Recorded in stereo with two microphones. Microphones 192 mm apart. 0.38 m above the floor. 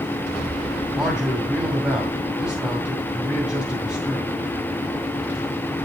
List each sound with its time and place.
0.9 s a man speaking: 5° right (ahead or behind), 2 m